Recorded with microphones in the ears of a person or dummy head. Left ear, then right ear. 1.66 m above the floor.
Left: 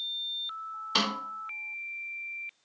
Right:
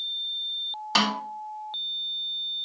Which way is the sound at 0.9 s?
45° right (ahead or behind).